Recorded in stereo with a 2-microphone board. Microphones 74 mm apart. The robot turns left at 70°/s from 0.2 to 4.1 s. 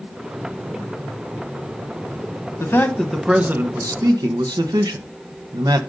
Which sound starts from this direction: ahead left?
A man speaking, at 2.6 s.